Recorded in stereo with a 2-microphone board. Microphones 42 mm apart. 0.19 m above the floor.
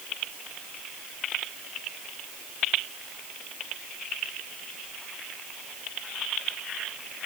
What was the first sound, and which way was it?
Only background noise.